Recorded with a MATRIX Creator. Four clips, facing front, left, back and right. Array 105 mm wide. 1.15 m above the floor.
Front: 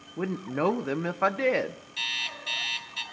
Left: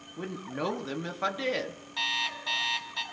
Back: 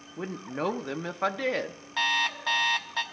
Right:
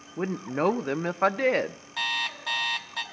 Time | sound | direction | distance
0.2 | a woman speaking | 65° right | 0.5 m
2.0 | an alarm clock | 170° right | 0.8 m